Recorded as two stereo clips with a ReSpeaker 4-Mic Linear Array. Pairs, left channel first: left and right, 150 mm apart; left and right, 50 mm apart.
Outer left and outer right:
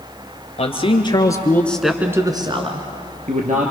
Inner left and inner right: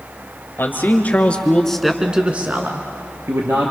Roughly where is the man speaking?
Left.